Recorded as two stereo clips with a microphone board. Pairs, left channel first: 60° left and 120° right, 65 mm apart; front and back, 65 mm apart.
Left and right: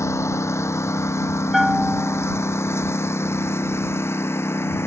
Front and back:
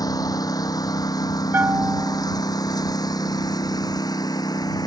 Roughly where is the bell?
Behind left.